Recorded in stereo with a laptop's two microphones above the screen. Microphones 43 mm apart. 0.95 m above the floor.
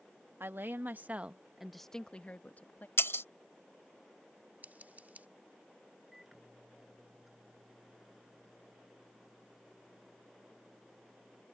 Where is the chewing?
No chewing in this recording.